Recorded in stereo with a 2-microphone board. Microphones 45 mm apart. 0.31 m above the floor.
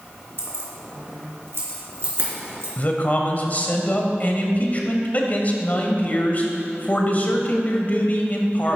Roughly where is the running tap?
No running tap in this recording.